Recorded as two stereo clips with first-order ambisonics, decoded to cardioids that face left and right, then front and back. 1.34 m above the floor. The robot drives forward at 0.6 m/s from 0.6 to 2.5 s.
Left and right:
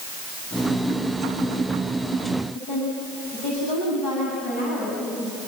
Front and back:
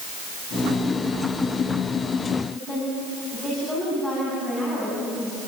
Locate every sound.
2.5 s a woman speaking: 95° left, 8.5 m